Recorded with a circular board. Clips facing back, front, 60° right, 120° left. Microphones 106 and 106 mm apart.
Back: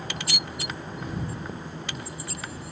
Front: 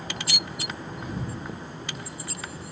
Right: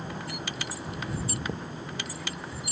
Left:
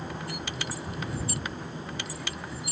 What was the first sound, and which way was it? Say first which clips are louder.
A thud: even, right 4 dB; 90° right.